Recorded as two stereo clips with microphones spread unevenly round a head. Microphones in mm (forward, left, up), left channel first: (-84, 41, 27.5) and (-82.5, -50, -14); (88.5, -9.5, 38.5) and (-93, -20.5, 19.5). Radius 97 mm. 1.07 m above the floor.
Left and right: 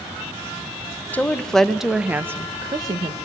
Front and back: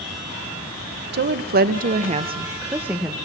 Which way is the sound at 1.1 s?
175° left.